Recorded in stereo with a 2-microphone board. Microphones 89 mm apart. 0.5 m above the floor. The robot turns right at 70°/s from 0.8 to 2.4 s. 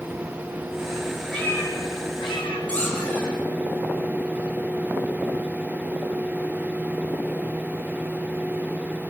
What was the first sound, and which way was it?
A cat meowing, 5° left.